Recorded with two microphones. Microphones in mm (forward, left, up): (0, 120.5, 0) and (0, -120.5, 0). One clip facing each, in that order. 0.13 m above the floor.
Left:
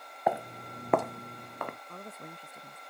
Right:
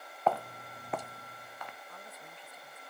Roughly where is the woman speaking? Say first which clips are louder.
Left 6 dB; left.